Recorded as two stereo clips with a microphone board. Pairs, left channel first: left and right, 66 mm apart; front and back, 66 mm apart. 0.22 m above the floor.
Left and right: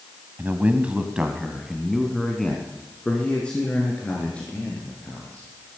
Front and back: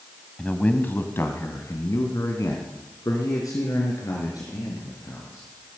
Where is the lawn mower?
No lawn mower in this recording.